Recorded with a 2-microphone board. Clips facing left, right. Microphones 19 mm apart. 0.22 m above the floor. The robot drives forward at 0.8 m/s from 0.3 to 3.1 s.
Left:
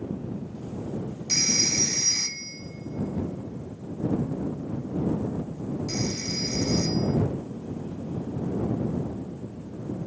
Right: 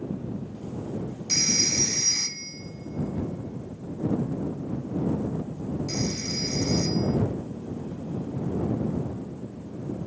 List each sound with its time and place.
1.3 s a phone ringing: 20° left (ahead or behind), 0.6 m; by 7.2 s 5° left (ahead or behind), 1.4 m